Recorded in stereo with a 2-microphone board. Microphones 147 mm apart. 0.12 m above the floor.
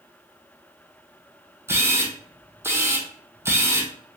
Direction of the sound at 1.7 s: 15° right (ahead or behind).